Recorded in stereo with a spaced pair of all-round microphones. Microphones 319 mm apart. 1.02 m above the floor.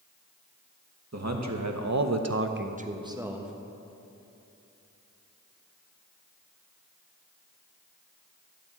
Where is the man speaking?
55° right (ahead or behind), 1.1 m; by 3.5 s centre (ahead or behind), 1.1 m.